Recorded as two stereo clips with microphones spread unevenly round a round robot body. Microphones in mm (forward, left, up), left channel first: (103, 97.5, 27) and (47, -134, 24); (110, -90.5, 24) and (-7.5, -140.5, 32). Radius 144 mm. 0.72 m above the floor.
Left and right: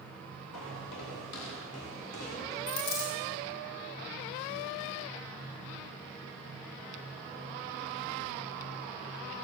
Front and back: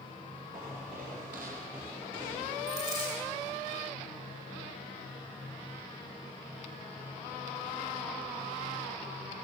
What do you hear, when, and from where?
0.5 s footsteps: 115° left, 7 m; by 2.6 s 125° left, 5.5 m
2.7 s a dropped coin: 115° left, 6 m